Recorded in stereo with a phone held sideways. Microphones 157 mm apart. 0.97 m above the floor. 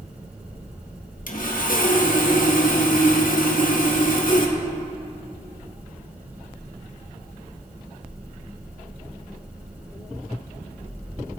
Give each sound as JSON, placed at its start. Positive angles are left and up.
{"t": 1.3, "sound": "sawing", "side_deg": 60, "distance_m": 1.5}